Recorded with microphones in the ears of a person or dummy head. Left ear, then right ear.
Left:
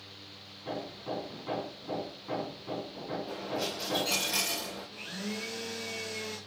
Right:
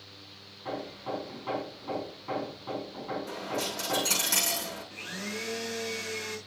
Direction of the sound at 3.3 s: 35° right (ahead or behind).